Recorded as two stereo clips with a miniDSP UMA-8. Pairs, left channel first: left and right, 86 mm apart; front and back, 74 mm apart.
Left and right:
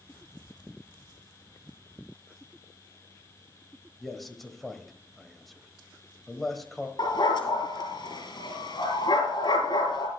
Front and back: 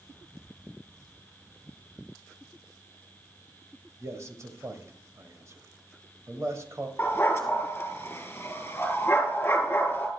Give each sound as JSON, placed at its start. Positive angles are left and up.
{"t": 4.0, "sound": "a man speaking", "azimuth_deg": 180, "distance_m": 1.4}
{"t": 7.0, "sound": "a dog barking", "azimuth_deg": 60, "distance_m": 2.5}